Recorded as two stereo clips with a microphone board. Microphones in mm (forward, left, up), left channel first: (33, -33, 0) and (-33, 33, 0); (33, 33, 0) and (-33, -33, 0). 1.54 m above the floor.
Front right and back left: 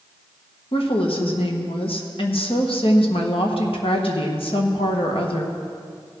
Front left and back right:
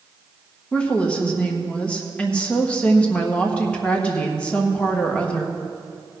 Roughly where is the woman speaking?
Ahead right.